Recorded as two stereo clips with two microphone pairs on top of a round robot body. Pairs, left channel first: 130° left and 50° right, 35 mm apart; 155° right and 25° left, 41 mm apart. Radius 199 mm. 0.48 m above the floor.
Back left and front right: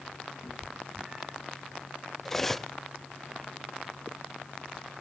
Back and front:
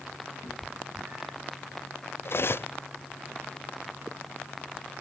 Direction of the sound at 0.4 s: 20° left.